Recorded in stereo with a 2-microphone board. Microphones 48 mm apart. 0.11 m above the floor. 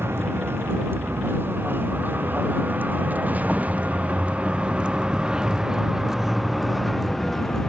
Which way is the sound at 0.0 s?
55° right (ahead or behind).